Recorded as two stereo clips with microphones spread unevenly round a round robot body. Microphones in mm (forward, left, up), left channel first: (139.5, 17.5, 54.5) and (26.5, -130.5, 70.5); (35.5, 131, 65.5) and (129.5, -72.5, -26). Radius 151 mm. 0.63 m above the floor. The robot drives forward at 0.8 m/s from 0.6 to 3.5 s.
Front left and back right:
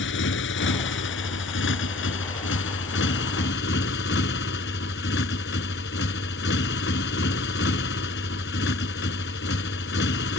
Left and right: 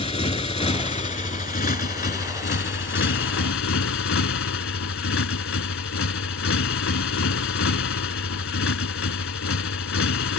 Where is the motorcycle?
55° left; by 10.4 s 95° left.